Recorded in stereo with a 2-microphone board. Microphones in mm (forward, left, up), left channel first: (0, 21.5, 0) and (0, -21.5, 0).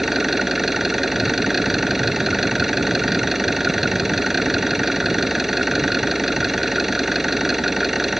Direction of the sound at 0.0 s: 10° right (ahead or behind).